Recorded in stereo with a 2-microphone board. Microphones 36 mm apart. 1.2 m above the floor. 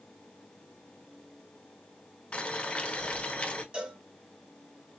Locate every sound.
2.3 s boiling: 35° left (ahead or behind), 1.0 m
3.7 s a cowbell: 30° right (ahead or behind), 1.4 m